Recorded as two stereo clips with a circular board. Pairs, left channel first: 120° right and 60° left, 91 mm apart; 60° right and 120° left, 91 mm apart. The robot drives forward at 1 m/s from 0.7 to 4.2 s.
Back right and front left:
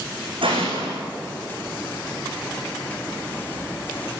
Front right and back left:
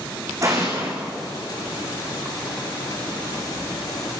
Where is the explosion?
70° left, 9 m.